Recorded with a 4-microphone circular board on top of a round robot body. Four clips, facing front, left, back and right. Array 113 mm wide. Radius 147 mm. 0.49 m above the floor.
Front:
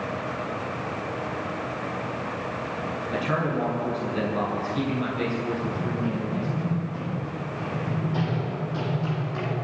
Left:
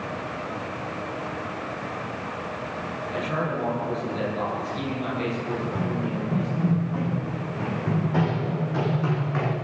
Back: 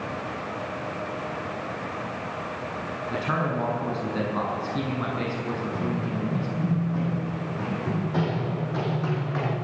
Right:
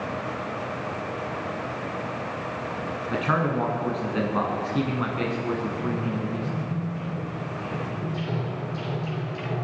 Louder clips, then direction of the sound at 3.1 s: Right 4 dB, even; 110° right.